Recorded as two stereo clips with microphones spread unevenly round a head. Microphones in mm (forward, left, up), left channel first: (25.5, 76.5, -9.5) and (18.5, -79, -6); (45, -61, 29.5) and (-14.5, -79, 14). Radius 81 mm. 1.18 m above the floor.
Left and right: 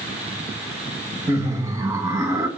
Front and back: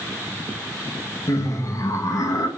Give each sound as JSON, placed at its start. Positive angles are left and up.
{"t": 1.3, "sound": "laughter", "azimuth_deg": -20, "distance_m": 1.7}